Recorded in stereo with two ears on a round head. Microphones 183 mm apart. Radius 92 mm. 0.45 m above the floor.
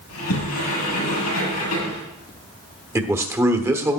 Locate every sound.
0.1 s a sliding door: 80° left, 7 m
3.0 s a man speaking: 15° right (ahead or behind), 1.1 m